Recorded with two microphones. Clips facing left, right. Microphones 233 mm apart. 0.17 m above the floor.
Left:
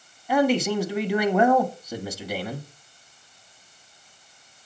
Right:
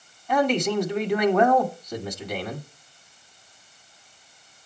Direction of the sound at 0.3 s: 5° left (ahead or behind).